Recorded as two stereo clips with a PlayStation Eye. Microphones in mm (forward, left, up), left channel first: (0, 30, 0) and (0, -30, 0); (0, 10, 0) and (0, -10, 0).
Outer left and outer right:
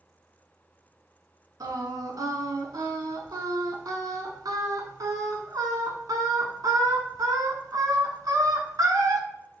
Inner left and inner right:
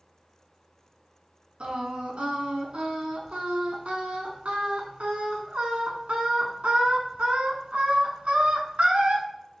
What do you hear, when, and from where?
1.6 s singing: 75° right (ahead or behind), 0.7 m